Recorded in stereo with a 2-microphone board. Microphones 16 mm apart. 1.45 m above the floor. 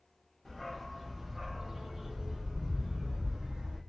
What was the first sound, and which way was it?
A dog barking, 25° left (ahead or behind).